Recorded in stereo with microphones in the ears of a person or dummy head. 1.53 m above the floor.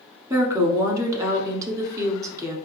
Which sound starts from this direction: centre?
A woman speaking, at 0.3 s.